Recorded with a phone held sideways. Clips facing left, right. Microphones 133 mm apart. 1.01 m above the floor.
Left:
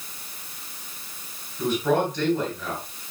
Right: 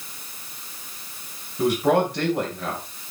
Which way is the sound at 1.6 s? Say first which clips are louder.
Right 3 dB; 80° right.